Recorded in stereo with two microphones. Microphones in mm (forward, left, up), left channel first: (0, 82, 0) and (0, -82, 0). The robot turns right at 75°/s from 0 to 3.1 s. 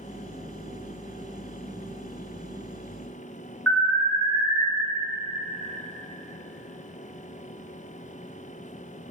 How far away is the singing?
No singing in this recording.